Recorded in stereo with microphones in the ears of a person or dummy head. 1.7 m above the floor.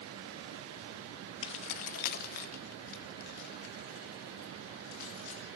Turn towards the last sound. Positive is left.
turn(degrees=60)  # may be behind; listen again after turning